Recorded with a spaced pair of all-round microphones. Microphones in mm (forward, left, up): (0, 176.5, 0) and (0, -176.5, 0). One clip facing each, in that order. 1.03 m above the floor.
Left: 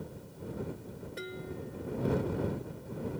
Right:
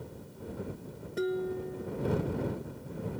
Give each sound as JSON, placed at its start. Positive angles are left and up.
{"t": 1.2, "sound": "dishes clattering", "side_deg": -60}